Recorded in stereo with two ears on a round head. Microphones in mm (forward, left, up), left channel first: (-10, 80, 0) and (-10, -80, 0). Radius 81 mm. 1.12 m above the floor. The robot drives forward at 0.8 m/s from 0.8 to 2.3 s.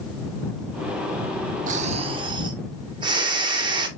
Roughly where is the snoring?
Right.